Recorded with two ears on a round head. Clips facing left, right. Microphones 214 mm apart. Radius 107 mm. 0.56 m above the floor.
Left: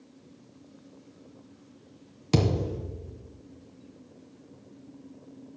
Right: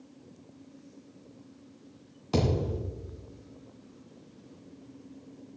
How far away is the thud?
About 2 m.